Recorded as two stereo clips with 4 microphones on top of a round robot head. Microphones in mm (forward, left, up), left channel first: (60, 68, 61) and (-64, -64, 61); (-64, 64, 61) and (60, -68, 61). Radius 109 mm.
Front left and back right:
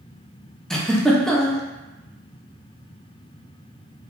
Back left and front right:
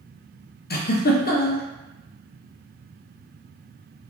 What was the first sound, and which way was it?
A giggle, 135° left.